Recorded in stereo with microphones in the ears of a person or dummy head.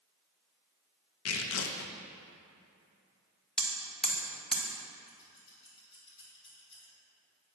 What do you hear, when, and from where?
1.2 s tearing paper: 70° left (ahead or behind), 0.8 m
3.6 s hammering: 5° right (ahead or behind), 1.4 m
5.1 s scissors: 25° left (ahead or behind), 3.5 m